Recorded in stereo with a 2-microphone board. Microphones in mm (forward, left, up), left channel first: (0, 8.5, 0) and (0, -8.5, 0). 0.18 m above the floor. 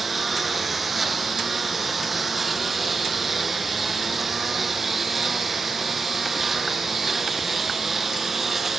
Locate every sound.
0.0 s a lawn mower: 10° right (ahead or behind); by 8.8 s 15° right (ahead or behind)